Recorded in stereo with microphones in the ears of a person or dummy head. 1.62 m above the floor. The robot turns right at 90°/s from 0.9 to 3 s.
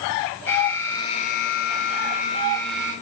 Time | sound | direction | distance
0.5 | an alarm | 10° left | 5 m